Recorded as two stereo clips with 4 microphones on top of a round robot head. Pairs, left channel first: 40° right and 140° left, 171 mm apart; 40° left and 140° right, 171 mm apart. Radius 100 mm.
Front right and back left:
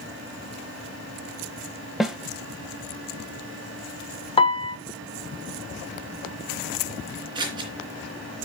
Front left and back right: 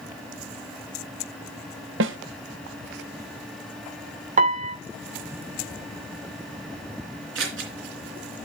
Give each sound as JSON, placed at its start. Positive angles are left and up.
{"t": 2.0, "sound": "a snare drum", "azimuth_deg": -130, "distance_m": 1.3}
{"t": 4.4, "sound": "a piano", "azimuth_deg": -95, "distance_m": 1.6}
{"t": 7.3, "sound": "scissors", "azimuth_deg": -155, "distance_m": 3.0}